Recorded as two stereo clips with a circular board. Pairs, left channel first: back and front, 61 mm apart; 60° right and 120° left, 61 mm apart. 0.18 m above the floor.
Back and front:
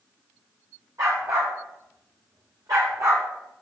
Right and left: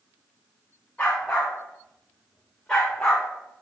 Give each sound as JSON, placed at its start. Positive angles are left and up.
{"t": 1.0, "sound": "a dog barking", "azimuth_deg": 15, "distance_m": 5.5}